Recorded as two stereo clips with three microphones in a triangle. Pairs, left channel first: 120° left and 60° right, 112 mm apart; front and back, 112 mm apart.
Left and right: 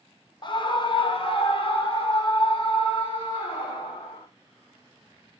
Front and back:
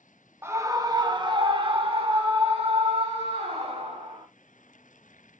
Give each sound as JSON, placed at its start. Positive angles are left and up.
{"t": 0.4, "sound": "a scream", "azimuth_deg": 125, "distance_m": 0.7}